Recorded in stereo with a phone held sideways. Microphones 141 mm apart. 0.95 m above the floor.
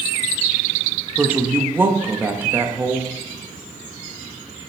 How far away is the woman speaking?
About 1.6 m.